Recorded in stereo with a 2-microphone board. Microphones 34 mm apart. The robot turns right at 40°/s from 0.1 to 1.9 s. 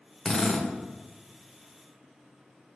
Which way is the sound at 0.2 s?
25° left (ahead or behind).